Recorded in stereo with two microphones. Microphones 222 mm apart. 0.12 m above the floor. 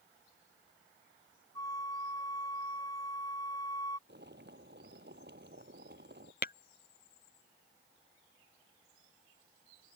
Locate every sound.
1.6 s a flute: 15° left (ahead or behind)
4.1 s boiling: 50° right (ahead or behind)
6.4 s tapping: 45° left (ahead or behind)